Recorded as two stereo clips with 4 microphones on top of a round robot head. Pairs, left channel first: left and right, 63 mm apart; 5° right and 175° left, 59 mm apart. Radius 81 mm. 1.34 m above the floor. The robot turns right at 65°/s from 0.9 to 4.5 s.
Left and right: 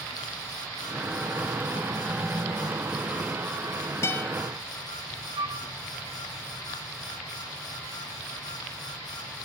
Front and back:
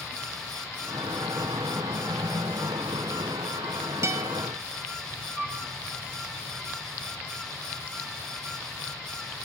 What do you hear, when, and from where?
4.0 s a guitar: 135° left, 1.5 m; by 4.3 s 155° left, 1.5 m
5.4 s a flute: 100° right, 1.9 m